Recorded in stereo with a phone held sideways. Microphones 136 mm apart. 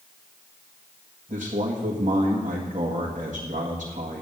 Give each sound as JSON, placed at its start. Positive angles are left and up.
{"t": 1.3, "sound": "a man speaking", "side_deg": -65, "distance_m": 1.7}